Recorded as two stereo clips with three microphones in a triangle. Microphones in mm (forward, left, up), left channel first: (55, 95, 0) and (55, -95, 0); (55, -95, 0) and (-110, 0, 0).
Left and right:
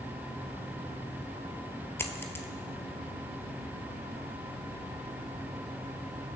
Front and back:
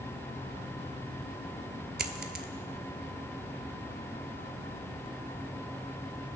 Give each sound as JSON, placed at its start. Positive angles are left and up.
{"t": 2.0, "sound": "a dropped coin", "azimuth_deg": 165, "distance_m": 0.9}